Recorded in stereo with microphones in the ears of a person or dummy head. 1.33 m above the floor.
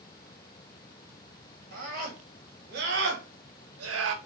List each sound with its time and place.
1.7 s a scream: 50° right (ahead or behind), 1.5 m; by 4.2 s 70° right (ahead or behind), 0.6 m